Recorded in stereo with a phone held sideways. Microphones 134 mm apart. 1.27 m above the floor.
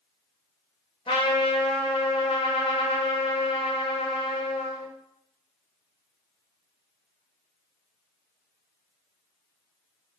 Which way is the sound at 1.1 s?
40° left (ahead or behind).